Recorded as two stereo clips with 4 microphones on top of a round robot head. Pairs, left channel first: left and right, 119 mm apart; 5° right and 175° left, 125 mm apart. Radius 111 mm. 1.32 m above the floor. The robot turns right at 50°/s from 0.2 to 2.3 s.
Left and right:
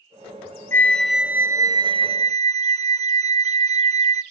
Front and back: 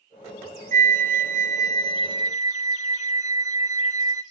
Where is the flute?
160° left, 0.7 m; by 4.2 s 120° right, 0.7 m.